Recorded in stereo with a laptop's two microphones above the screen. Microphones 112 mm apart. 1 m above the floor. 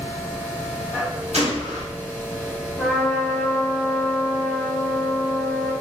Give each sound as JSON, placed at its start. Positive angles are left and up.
{"t": 0.0, "sound": "a machine running", "side_deg": -10, "distance_m": 1.0}
{"t": 1.3, "sound": "a gunshot", "side_deg": -75, "distance_m": 1.3}
{"t": 2.8, "sound": "a trumpet", "side_deg": 5, "distance_m": 0.9}